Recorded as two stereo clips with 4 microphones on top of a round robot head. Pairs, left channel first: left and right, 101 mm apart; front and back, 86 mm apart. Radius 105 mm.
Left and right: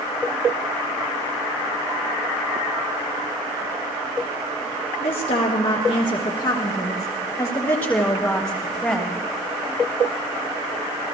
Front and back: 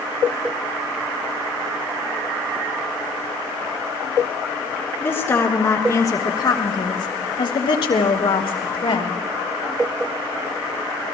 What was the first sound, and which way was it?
A woman speaking, 65° left.